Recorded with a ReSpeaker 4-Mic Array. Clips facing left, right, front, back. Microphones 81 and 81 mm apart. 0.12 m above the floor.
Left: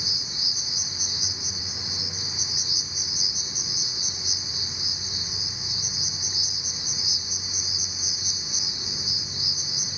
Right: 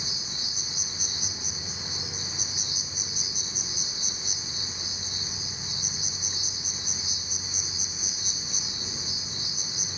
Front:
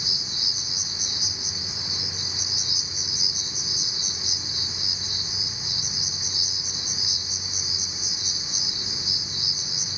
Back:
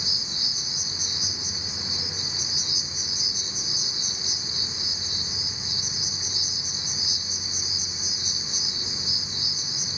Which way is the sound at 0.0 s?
160° left.